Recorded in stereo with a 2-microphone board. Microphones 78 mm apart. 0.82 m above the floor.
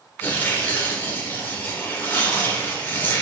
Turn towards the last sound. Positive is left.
turn(degrees=25)  # may be behind; listen again after turning